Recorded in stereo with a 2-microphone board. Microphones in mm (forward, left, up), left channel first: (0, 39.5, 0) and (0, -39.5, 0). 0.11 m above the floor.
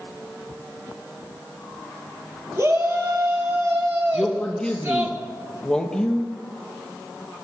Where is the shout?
35° right (ahead or behind), 3.5 m.